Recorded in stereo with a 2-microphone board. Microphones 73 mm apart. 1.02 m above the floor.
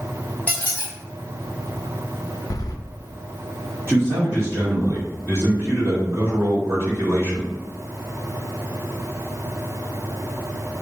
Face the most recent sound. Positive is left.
turn(degrees=-35)  # may be behind; listen again after turning